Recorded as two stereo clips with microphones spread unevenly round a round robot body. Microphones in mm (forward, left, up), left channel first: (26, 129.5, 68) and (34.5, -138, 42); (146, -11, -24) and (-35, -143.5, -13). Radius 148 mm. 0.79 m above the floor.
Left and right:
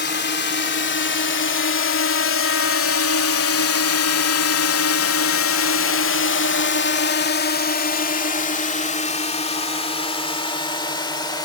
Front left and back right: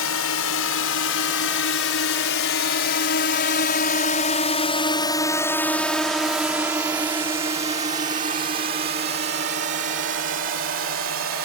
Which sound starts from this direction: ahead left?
A drone, at 0.0 s.